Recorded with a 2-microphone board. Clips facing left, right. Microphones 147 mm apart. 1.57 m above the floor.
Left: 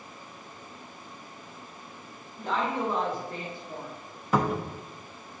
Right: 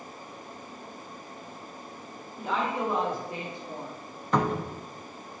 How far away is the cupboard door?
About 1.0 m.